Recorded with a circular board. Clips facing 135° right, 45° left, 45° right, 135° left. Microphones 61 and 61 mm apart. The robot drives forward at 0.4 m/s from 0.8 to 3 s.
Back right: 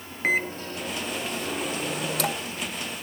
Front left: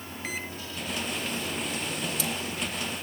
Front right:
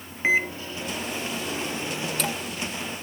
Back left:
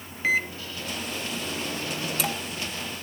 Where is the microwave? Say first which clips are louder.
Back right 12 dB, front right 2 dB; 105° right, 0.7 m; by 2.5 s 145° right, 1.1 m.